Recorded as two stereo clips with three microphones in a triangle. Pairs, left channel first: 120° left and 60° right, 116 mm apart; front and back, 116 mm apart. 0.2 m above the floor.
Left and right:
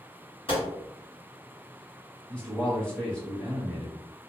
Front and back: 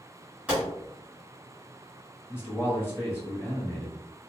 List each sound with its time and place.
0.5 s a gunshot: 105° left, 1.9 m
2.3 s a man speaking: 45° left, 1.4 m